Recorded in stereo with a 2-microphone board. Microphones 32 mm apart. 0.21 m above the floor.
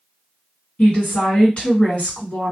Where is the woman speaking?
40° left (ahead or behind), 2 m.